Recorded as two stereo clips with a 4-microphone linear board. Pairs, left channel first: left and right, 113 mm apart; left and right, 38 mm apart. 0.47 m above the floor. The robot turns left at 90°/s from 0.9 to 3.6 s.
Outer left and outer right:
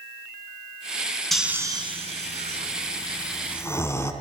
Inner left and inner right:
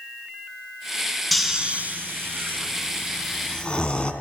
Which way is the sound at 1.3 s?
5° left (ahead or behind).